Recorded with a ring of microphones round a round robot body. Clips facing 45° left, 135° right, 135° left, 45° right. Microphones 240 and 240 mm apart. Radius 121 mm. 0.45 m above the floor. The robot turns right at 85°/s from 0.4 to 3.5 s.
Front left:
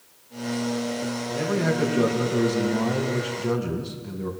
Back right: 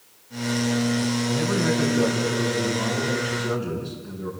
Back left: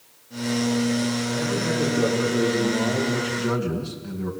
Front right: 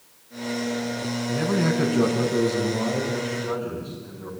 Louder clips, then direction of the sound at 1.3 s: Back right 2 dB, front right 2 dB; 95° right.